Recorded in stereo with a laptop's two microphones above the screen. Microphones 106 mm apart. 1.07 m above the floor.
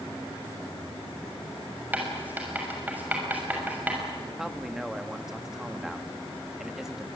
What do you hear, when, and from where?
1.9 s writing: 15° right (ahead or behind), 6.5 m
4.4 s a man speaking: 5° right (ahead or behind), 1.9 m